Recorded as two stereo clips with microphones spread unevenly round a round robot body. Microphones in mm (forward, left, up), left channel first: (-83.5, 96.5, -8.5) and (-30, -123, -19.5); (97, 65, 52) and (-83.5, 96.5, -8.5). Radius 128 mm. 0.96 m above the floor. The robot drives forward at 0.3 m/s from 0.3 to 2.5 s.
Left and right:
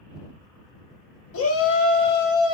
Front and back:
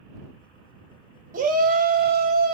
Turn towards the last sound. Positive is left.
turn(degrees=135)